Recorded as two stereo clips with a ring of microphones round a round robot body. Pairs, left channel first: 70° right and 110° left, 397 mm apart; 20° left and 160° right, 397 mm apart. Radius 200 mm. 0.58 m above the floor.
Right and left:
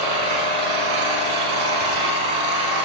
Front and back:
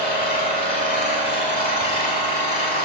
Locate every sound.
0.0 s an engine running: 90° left, 2.5 m